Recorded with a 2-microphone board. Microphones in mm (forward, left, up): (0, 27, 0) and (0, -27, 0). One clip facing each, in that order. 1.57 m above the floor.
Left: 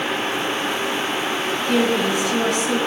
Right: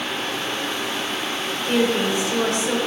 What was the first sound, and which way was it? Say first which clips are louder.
A woman speaking: even; 30° right (ahead or behind).